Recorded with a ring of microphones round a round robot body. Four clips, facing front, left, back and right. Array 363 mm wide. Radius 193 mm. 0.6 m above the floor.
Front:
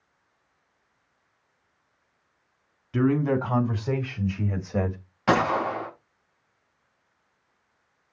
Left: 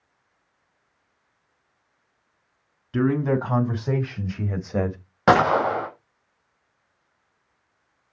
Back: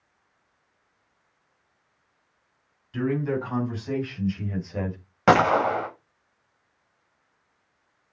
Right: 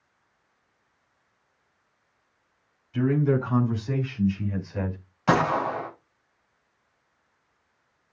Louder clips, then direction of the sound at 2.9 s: Left 2 dB, front 3 dB; 55° left.